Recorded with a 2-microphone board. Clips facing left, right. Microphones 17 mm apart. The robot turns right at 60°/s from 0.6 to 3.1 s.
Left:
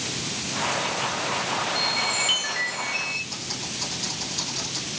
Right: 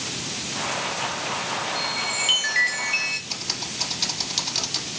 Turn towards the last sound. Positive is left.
turn(degrees=-90)